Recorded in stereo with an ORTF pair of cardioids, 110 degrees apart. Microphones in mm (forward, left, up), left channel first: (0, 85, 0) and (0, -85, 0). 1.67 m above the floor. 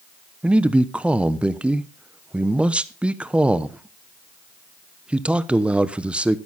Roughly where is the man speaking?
Ahead.